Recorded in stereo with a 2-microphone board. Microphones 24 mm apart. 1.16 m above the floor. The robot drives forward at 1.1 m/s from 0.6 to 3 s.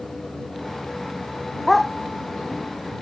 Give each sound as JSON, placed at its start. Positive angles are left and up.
{"t": 1.7, "sound": "a dog barking", "side_deg": 0}